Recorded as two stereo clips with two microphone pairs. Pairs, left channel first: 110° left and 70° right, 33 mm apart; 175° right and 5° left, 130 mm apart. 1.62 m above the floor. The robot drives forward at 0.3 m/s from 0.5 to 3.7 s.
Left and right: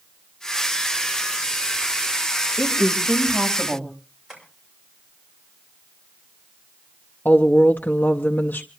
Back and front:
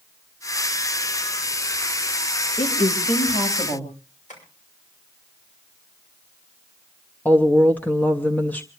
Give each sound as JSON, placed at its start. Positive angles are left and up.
{"t": 2.6, "sound": "a woman speaking", "azimuth_deg": 150, "distance_m": 3.0}
{"t": 4.3, "sound": "tapping", "azimuth_deg": -155, "distance_m": 6.5}
{"t": 7.2, "sound": "a woman speaking", "azimuth_deg": 110, "distance_m": 0.8}